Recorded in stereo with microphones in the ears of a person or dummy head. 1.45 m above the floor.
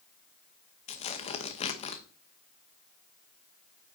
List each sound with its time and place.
0.9 s tearing paper: 35° left (ahead or behind), 1.1 m